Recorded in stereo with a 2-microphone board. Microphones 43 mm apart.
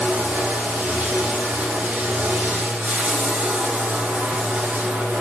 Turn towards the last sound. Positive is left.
turn(degrees=-35)  # may be behind; listen again after turning